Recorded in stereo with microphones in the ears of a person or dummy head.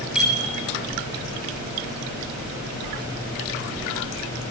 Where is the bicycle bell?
Centre (ahead or behind), 6 m.